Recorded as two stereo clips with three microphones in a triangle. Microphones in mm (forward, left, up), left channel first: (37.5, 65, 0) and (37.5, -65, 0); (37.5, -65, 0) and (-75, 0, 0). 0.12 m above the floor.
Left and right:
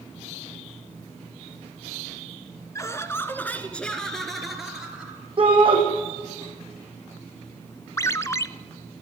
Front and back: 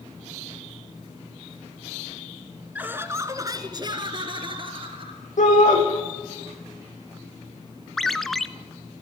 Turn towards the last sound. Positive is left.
turn(degrees=55)